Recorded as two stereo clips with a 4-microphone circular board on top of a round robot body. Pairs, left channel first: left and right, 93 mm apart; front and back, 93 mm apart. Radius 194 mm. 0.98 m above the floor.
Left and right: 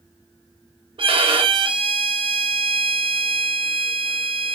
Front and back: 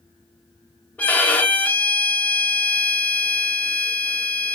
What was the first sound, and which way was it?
A violin, 70° right.